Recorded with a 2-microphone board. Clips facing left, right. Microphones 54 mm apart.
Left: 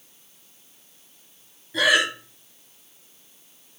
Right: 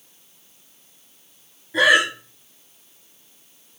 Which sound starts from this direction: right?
Breathing, at 1.7 s.